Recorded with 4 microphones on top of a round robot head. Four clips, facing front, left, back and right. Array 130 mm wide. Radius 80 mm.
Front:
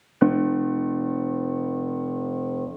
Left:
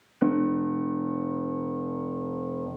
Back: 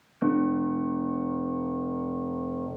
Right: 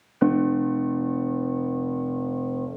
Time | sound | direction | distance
0.2 | a piano | 15° right | 1.1 m